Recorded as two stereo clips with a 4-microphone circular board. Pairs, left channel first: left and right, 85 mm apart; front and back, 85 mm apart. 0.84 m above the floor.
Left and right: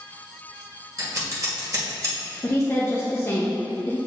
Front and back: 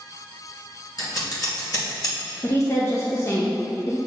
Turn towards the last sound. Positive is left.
turn(degrees=40)